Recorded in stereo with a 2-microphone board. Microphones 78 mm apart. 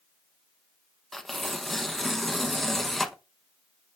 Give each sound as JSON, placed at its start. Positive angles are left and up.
{"t": 1.1, "sound": "tearing paper", "side_deg": 5, "distance_m": 0.7}